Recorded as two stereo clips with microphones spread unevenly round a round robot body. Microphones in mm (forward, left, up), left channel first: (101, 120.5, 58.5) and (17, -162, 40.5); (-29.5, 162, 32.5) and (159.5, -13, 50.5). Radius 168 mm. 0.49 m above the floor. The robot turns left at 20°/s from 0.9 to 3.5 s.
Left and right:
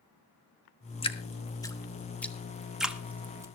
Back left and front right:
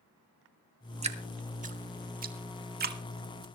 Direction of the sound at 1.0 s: 10° left.